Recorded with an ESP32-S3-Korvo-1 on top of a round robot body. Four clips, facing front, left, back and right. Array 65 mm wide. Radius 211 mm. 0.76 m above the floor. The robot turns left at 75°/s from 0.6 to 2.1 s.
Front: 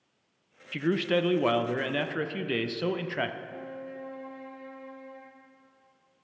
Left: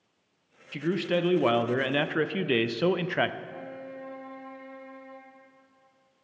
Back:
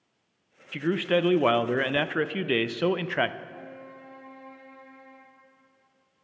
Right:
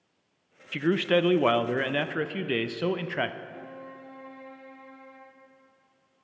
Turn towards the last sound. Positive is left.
turn(degrees=75)